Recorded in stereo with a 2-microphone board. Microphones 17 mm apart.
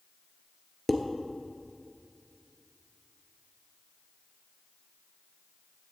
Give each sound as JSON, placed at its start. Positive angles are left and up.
{"t": 0.9, "sound": "dishes clattering", "side_deg": 5, "distance_m": 1.2}